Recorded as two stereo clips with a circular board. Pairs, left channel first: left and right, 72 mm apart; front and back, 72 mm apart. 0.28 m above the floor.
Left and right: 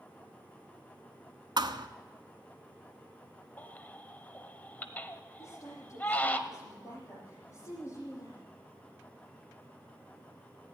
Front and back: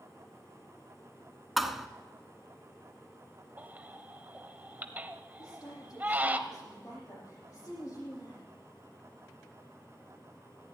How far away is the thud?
About 0.9 m.